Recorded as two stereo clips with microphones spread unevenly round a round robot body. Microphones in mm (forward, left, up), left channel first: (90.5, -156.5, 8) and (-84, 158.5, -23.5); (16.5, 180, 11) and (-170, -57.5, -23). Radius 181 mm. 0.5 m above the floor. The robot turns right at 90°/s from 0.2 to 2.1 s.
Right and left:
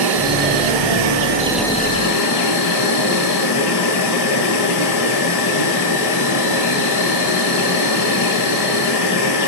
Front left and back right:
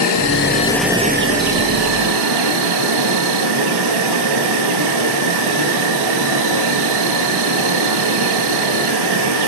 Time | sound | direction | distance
0.0 | an insect | 85° left | 2 m